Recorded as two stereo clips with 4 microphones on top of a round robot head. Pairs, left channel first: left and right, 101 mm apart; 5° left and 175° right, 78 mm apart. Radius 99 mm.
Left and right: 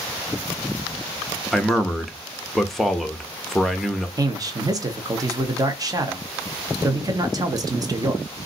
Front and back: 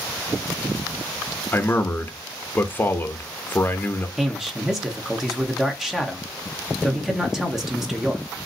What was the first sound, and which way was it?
A man speaking, 5° left.